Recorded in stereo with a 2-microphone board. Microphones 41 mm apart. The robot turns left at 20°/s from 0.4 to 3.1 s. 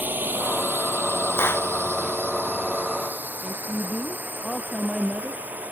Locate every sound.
0.0 s a drone: 50° right (ahead or behind); by 5.7 s 45° right (ahead or behind)
1.4 s a clap: 70° left (ahead or behind); by 1.7 s 65° left (ahead or behind)
3.4 s a woman speaking: 15° left (ahead or behind)